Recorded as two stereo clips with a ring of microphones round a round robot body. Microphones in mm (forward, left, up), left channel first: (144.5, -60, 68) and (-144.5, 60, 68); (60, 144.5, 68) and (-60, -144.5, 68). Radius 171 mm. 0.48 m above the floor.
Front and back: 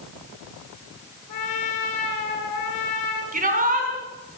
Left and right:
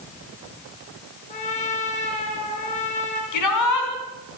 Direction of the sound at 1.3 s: Straight ahead.